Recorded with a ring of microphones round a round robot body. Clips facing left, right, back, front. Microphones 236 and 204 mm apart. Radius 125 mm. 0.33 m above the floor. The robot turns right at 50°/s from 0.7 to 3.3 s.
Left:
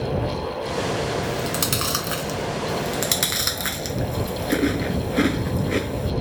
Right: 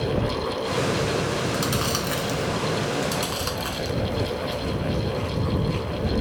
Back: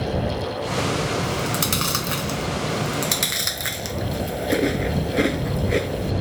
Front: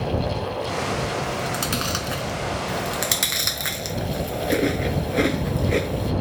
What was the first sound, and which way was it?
Chewing, 120° left.